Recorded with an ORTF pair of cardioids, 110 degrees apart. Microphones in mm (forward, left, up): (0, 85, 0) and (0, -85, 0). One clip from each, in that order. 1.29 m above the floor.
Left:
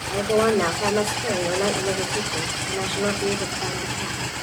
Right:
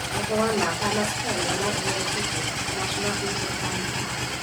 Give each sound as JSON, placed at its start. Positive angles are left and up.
{"t": 0.1, "sound": "a woman speaking", "azimuth_deg": 35, "distance_m": 4.0}